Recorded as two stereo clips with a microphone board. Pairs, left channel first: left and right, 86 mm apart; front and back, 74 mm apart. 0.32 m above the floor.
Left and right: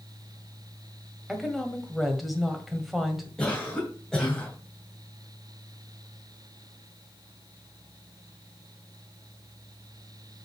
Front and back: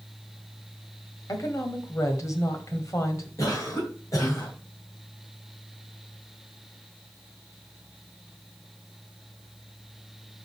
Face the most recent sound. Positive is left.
turn(degrees=10)